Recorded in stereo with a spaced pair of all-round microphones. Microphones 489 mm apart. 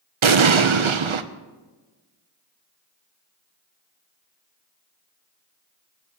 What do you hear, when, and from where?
0.2 s an explosion: 70° right (ahead or behind), 0.7 m